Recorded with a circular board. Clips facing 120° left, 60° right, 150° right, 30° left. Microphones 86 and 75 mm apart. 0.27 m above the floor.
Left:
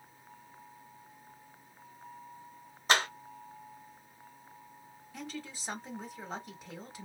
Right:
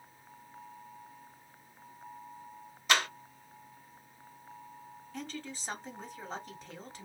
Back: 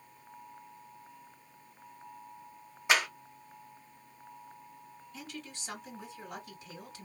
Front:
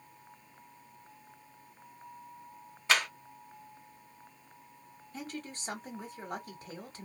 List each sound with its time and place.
2.9 s a clap: 145° left, 1.4 m
5.1 s a woman speaking: 40° left, 1.5 m